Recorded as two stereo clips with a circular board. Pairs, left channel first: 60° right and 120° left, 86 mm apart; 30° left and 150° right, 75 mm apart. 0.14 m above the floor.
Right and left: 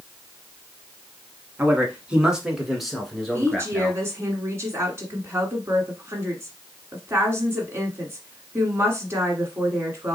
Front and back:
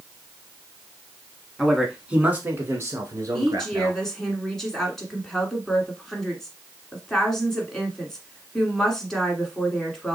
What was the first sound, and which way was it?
A man speaking, 120° left.